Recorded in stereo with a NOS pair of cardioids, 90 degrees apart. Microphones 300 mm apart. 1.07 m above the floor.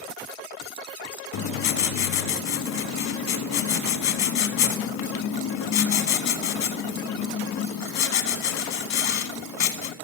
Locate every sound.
1.3 s writing: 65° left, 1.3 m